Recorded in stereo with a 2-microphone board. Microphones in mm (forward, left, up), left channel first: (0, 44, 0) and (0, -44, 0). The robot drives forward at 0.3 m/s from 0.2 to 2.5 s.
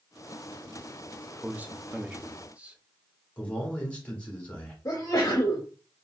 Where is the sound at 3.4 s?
15° left (ahead or behind), 1.8 m.